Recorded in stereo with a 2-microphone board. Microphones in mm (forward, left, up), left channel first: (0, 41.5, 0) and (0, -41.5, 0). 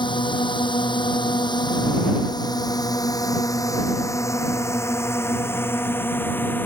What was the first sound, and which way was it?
A drone, 70° left (ahead or behind).